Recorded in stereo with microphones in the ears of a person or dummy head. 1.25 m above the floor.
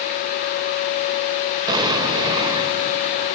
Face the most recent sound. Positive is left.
turn(degrees=-20)  # may be behind; listen again after turning